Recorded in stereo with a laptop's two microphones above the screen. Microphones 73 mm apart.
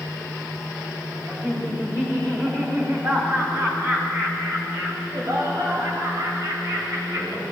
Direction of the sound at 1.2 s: 30° right (ahead or behind).